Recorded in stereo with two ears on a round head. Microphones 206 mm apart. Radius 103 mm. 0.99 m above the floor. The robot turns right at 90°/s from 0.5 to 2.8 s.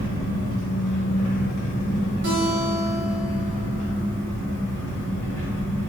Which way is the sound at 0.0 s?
35° right.